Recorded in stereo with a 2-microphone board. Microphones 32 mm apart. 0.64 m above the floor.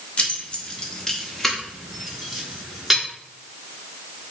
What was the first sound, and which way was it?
Keys jangling, 40° left (ahead or behind).